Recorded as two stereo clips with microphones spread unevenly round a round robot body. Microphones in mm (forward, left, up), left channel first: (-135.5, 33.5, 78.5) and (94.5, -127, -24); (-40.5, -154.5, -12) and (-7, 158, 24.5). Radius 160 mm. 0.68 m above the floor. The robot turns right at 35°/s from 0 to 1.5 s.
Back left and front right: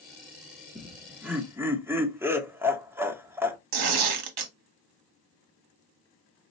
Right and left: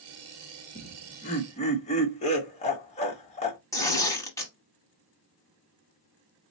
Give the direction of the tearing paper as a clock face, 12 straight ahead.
12 o'clock.